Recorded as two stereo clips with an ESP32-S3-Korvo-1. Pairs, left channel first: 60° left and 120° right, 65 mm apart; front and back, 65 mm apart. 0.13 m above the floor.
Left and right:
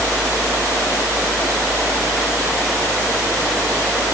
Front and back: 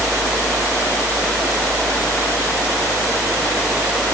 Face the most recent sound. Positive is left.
No sound to turn to.